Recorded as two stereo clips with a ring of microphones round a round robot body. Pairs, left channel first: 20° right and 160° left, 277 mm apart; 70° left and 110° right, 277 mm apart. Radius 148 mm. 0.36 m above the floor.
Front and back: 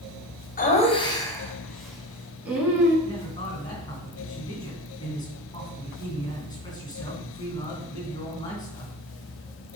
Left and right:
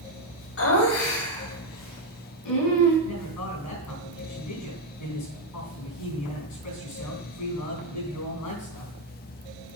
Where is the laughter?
35° left, 1.8 m; by 3.0 s 75° left, 4 m.